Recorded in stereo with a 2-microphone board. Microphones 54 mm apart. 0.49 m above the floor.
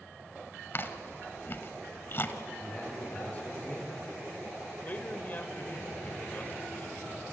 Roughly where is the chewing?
Left.